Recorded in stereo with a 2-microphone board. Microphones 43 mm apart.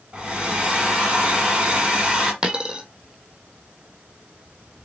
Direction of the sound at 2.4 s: 20° right (ahead or behind).